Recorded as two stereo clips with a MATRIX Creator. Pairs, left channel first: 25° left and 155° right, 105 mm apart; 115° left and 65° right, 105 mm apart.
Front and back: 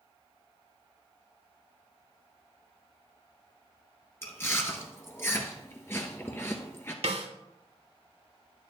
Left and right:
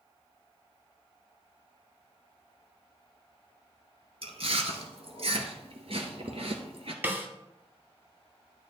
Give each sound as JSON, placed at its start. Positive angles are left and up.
{"t": 4.2, "sound": "chewing", "azimuth_deg": -45, "distance_m": 1.2}
{"t": 7.0, "sound": "a snare drum", "azimuth_deg": -140, "distance_m": 1.0}